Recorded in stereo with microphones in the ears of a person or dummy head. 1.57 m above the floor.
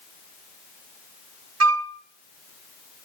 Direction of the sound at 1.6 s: 80° right.